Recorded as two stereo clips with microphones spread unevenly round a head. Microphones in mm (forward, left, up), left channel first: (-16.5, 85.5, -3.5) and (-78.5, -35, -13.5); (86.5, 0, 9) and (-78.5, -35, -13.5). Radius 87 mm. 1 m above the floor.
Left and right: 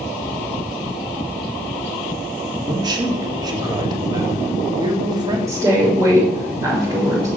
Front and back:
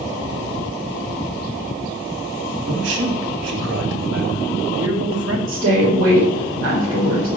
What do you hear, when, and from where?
2.7 s a man speaking: 175° right, 2.5 m
5.5 s a woman speaking: straight behind, 4 m